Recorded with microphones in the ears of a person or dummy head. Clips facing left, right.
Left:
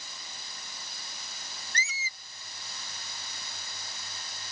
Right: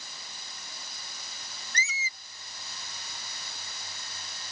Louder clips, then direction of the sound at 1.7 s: Right 2 dB; 80° right.